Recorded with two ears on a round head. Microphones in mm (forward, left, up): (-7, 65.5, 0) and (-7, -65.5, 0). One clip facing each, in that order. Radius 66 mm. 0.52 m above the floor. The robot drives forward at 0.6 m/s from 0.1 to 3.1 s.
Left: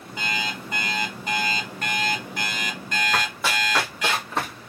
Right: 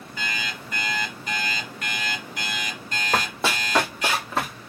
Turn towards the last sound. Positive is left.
turn(degrees=0)  # may be behind; listen again after turning